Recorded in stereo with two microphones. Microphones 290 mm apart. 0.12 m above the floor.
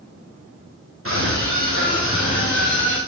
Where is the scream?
45° right (ahead or behind), 7.5 m; by 3.0 s 40° right (ahead or behind), 7 m.